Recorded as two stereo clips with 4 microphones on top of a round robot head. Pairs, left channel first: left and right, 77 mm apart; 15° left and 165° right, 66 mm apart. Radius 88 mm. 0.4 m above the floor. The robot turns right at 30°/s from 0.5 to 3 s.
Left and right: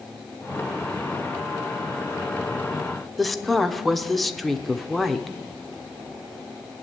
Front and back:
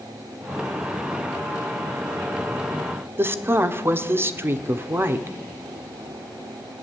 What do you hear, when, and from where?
3.2 s a woman speaking: 175° left, 1.2 m